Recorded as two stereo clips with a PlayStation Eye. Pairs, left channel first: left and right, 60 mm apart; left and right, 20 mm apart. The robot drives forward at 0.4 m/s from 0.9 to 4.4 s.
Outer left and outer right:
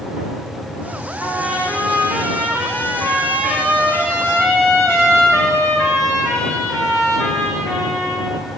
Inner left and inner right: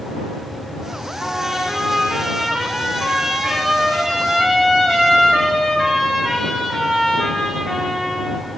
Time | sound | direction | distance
1.2 | a trumpet | 15° right (ahead or behind) | 4.5 m